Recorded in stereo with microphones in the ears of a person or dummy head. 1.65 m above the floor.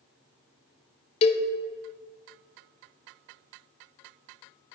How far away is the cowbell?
About 0.6 m.